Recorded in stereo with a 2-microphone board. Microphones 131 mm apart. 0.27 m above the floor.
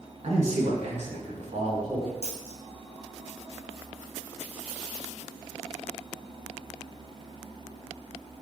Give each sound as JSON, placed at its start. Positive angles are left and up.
{"t": 0.2, "sound": "a man speaking", "side_deg": -60, "distance_m": 3.0}
{"t": 2.2, "sound": "a dropped coin", "side_deg": -50, "distance_m": 1.9}